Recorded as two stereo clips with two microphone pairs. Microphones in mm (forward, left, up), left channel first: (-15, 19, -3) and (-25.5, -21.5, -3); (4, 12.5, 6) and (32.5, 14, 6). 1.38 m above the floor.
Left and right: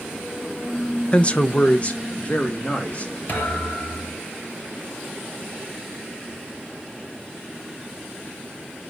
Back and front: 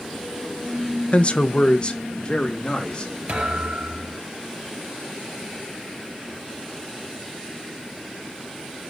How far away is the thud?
About 4.5 m.